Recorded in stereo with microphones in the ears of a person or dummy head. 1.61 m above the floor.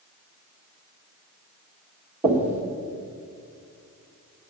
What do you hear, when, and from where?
2.2 s knocking: 5° right (ahead or behind), 1.5 m